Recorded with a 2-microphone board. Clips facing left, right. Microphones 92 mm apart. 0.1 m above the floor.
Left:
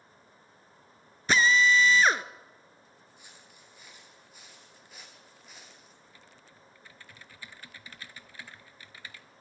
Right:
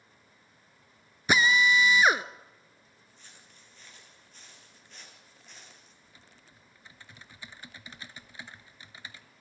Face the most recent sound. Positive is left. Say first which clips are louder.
# left 3 dB
turn(degrees=-20)  # may be behind; listen again after turning